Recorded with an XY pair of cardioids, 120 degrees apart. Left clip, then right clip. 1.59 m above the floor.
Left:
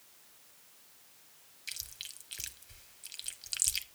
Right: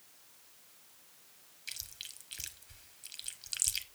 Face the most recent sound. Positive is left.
turn(degrees=5)